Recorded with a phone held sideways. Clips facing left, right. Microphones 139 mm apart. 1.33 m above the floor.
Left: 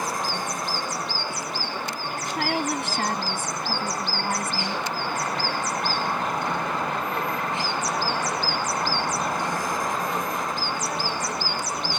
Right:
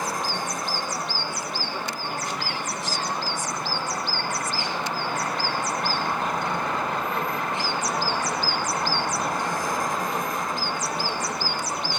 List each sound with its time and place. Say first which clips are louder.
2.3 s a woman speaking: left 6 dB; 60° left (ahead or behind)